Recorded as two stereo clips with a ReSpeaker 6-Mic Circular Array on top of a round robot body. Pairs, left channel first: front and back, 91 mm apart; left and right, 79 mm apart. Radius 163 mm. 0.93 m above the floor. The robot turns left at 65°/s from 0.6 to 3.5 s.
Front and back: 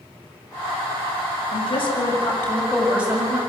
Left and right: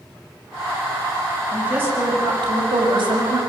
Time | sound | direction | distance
1.5 | a woman speaking | 5° right | 5.5 m